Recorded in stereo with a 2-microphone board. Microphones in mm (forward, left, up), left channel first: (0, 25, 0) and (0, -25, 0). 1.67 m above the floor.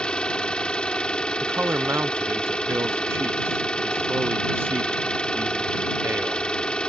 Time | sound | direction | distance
0.0 | an engine running | 20° left (ahead or behind) | ?
1.4 | a man speaking | 50° right (ahead or behind) | ?